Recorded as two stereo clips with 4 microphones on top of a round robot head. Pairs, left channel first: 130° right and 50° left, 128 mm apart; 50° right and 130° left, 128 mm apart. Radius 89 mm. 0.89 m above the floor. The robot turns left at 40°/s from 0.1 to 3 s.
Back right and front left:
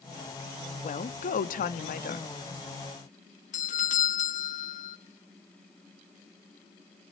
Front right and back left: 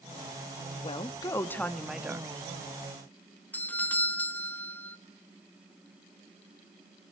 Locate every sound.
0.8 s a woman speaking: 95° right, 1.3 m; by 2.3 s 155° right, 1.3 m
3.5 s a doorbell: 125° right, 1.8 m